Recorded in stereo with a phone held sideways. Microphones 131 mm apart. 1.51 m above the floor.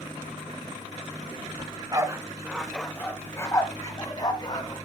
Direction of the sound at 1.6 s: 35° right (ahead or behind).